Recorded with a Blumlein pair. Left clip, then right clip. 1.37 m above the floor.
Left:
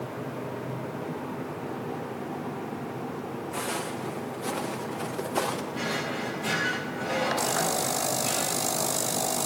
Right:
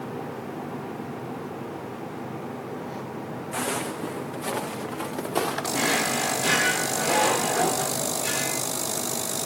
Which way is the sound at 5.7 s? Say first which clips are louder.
Right 6 dB; 60° right.